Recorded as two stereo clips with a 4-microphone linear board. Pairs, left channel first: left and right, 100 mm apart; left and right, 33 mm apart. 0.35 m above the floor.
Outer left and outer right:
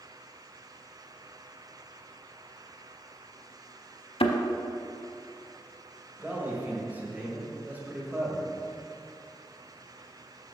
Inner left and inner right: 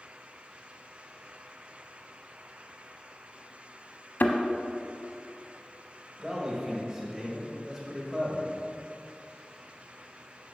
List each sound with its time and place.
4.2 s a thud: 75° left (ahead or behind), 0.7 m
6.2 s a man speaking: 15° right (ahead or behind), 1.6 m